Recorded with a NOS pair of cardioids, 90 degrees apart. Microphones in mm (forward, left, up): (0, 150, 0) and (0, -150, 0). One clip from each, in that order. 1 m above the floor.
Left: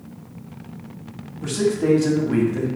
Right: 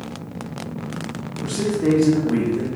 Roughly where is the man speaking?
Ahead.